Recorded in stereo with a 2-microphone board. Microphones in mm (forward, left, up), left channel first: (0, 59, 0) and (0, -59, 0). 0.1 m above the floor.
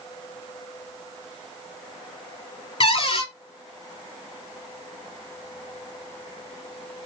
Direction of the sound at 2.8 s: 50° left (ahead or behind).